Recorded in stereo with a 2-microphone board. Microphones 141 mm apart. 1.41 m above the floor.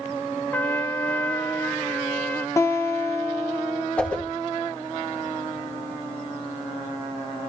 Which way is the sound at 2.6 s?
20° left (ahead or behind).